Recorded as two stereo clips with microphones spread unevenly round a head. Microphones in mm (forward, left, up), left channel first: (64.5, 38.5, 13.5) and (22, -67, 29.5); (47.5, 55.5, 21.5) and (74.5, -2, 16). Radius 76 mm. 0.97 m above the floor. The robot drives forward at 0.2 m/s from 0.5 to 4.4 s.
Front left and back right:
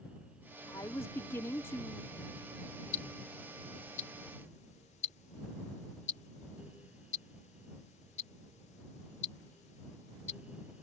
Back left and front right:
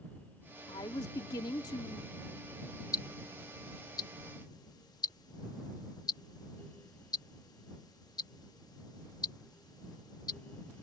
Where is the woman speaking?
140° left; by 2.1 s 145° left.